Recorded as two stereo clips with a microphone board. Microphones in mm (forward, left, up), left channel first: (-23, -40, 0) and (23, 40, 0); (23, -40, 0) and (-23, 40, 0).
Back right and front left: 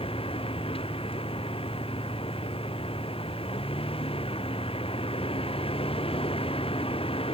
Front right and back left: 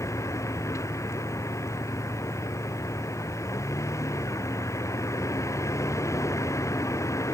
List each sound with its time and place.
0.0 s a vehicle: 120° right